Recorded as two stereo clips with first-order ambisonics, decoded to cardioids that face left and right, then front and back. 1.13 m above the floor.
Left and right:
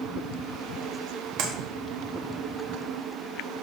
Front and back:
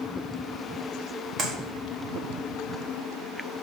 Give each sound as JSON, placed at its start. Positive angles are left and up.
{"t": 1.4, "sound": "a clap", "azimuth_deg": -120, "distance_m": 1.3}